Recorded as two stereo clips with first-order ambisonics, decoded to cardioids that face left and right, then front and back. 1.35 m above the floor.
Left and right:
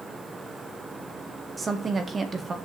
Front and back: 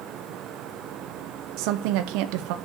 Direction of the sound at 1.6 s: 165° right.